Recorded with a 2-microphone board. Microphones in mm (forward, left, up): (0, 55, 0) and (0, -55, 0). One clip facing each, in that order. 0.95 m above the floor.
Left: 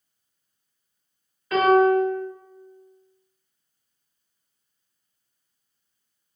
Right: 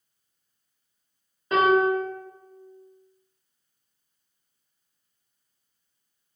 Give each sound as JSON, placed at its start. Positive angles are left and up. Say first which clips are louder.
{"t": 1.5, "sound": "a piano", "louder": "left 3 dB", "side_deg": -25, "distance_m": 1.1}